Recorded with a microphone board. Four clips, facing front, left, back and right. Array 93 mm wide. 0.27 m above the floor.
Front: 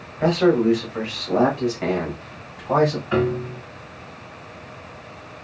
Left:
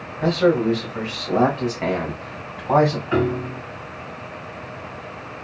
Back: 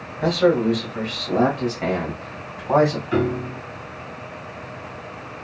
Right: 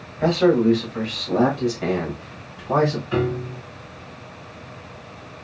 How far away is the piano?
About 2 m.